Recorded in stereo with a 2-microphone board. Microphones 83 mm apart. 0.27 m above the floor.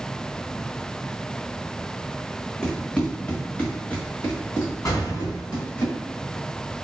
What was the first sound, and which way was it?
Running footsteps, 10° left (ahead or behind).